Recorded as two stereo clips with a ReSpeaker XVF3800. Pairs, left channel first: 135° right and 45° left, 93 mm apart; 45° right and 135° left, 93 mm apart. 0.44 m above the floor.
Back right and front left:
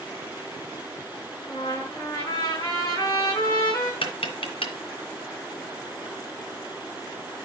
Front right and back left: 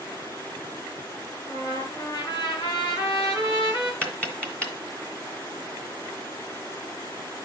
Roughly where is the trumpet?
Right.